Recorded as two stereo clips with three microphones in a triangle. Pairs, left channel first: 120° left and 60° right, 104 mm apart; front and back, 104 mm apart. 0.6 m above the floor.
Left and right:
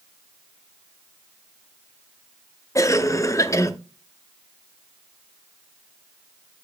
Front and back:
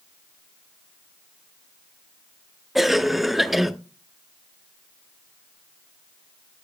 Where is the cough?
95° left, 0.9 m.